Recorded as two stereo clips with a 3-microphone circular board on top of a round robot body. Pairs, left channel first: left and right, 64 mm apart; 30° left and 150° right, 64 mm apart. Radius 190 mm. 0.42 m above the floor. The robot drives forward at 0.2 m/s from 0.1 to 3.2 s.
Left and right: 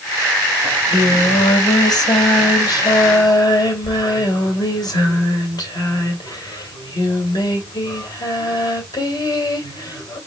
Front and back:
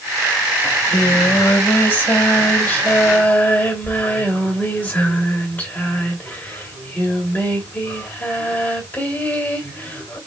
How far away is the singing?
About 3 m.